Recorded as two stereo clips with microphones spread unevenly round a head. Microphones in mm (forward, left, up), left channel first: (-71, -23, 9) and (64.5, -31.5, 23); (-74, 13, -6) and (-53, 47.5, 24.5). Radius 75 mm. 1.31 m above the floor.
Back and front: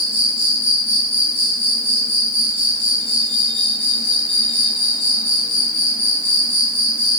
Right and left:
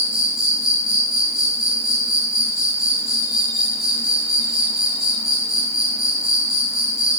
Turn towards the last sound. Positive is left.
turn(degrees=120)